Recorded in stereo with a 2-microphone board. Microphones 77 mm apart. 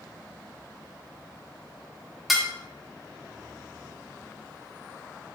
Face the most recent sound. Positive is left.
turn(degrees=-5)  # may be behind; listen again after turning